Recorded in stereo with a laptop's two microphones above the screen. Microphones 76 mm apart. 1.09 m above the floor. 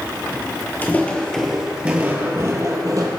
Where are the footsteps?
25° left (ahead or behind), 1.2 m; by 3.1 s 50° right (ahead or behind), 1.6 m.